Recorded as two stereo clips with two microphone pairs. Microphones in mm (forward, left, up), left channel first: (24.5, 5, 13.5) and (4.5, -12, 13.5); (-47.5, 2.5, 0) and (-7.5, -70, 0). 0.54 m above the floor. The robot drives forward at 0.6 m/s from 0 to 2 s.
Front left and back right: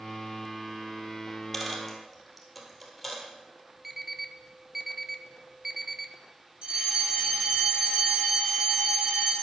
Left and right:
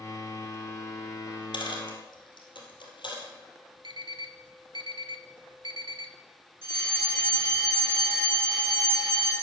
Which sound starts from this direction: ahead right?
An alarm clock, at 3.8 s.